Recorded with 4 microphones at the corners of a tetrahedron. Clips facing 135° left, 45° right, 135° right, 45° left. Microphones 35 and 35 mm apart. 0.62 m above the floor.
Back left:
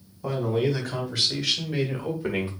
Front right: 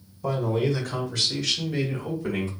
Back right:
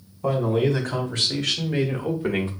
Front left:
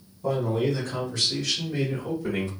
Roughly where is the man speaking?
Behind right.